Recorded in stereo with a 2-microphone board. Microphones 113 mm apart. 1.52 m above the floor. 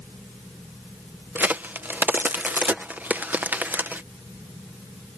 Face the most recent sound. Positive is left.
turn(degrees=-15)  # may be behind; listen again after turning